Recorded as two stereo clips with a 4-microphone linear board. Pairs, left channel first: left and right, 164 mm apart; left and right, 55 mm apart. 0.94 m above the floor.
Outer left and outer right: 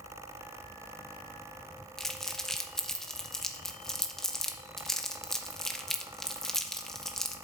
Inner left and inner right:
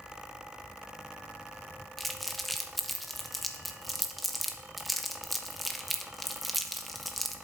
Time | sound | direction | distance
2.0 | crumpling | centre (ahead or behind) | 0.9 m